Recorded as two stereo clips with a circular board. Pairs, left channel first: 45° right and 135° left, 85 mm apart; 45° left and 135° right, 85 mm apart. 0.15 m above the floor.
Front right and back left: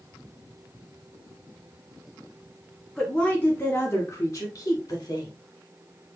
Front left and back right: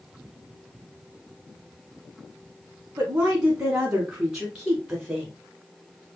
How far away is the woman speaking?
About 1.0 m.